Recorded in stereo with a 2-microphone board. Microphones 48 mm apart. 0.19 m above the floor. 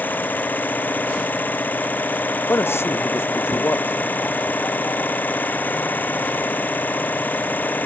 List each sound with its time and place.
0.0 s an engine running: 40° left (ahead or behind)
2.5 s a man speaking: 60° left (ahead or behind)